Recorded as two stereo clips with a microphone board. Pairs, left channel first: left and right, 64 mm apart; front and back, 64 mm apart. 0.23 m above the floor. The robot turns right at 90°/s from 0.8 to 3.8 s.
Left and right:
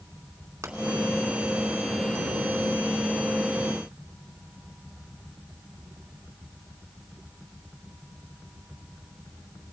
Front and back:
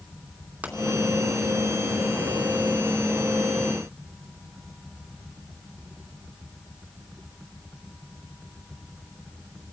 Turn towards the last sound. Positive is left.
turn(degrees=150)